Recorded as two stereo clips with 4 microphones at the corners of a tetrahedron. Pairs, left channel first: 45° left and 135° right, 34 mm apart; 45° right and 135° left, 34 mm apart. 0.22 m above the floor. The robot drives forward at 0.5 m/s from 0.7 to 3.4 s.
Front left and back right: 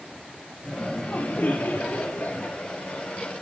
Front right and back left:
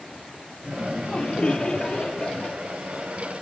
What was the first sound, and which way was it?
Laughter, 15° left.